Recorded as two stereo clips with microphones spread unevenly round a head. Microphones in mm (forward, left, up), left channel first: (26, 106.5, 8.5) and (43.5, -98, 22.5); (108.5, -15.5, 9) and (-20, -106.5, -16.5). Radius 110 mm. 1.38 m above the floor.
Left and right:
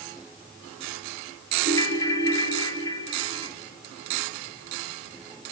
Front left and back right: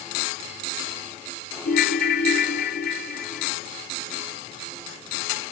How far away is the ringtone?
About 1.9 m.